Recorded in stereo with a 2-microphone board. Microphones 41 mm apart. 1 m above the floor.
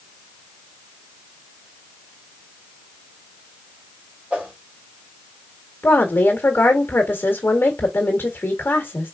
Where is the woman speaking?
60° left (ahead or behind), 1.4 m.